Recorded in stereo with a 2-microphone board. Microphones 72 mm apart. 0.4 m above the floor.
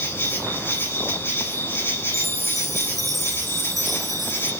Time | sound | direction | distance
0.0 | an insect | 30° left (ahead or behind) | 4 m
2.1 | a chime | centre (ahead or behind) | 2.5 m